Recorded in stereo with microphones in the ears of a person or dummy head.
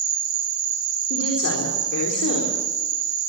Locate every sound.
0.0 s an insect: 40° right (ahead or behind), 5.5 m
1.1 s a woman speaking: 75° left (ahead or behind), 4 m